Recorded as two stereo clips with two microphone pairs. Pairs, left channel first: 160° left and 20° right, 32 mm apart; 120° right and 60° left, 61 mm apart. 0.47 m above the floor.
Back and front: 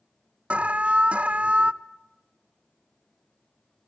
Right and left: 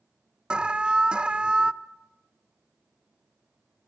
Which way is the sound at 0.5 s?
5° right.